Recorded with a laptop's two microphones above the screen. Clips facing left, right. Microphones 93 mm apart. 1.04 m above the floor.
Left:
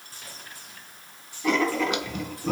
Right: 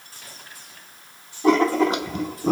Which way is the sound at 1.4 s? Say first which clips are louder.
Right 6 dB; 35° right (ahead or behind).